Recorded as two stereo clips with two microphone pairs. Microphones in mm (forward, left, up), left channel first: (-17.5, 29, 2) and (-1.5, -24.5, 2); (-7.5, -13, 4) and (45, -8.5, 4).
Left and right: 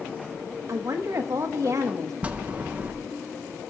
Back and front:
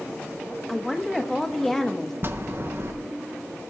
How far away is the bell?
About 0.7 m.